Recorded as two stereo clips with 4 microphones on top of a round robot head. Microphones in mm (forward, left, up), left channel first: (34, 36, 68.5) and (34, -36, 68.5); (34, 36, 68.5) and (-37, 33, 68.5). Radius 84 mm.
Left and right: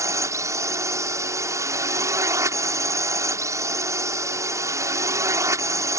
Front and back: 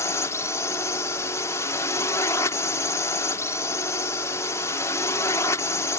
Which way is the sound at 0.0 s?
50° right.